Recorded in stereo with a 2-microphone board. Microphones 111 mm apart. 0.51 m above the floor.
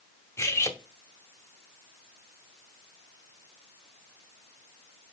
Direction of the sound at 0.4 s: 25° left (ahead or behind).